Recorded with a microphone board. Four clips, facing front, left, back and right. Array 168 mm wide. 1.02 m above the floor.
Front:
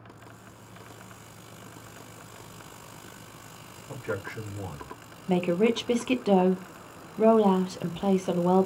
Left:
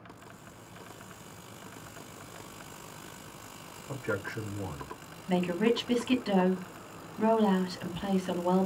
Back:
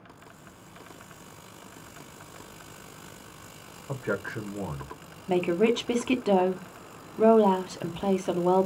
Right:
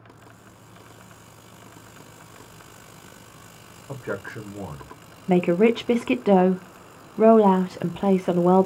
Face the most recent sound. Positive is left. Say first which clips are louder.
# right 9 dB, even
turn(degrees=-90)